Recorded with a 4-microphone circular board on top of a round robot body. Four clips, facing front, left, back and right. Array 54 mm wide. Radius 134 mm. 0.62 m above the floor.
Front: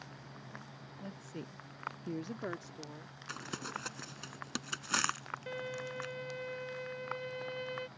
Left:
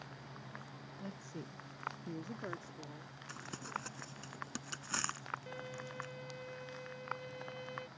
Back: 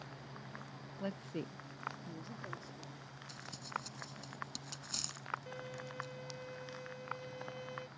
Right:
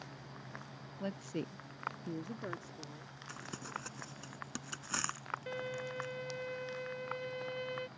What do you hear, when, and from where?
1.0 s a woman speaking: 135° right; by 3.2 s 10° left
3.3 s crumpling: straight ahead
5.5 s a violin: 35° right